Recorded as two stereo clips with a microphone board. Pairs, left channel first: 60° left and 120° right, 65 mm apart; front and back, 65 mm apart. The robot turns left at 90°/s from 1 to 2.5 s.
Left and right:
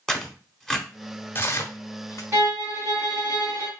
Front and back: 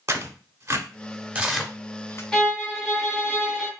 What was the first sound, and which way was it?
Tearing paper, 140° left.